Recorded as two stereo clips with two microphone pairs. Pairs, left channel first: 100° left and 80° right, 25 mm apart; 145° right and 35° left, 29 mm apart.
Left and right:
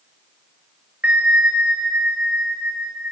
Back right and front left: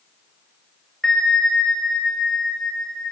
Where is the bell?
80° right, 0.8 m.